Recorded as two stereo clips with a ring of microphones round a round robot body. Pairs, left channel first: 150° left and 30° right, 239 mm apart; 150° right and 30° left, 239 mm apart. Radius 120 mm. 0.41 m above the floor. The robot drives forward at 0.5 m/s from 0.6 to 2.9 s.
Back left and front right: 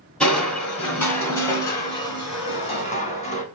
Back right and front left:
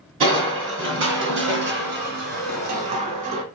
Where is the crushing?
65° left, 3 m; by 3.4 s 90° left, 2.5 m.